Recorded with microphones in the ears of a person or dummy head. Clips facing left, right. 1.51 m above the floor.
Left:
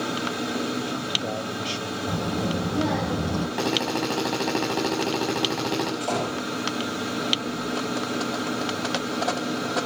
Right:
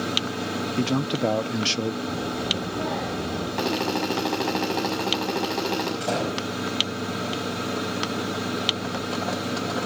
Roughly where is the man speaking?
Right.